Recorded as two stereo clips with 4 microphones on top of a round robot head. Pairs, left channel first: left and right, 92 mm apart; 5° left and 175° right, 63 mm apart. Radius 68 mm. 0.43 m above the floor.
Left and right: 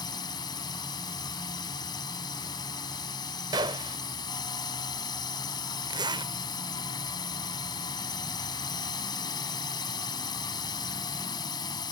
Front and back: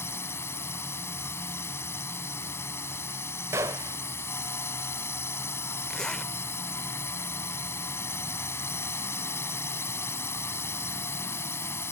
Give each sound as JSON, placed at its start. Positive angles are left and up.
{"t": 0.0, "sound": "a drone", "azimuth_deg": 50}
{"t": 3.5, "sound": "a gunshot", "azimuth_deg": -130}
{"t": 5.9, "sound": "a zipper", "azimuth_deg": -75}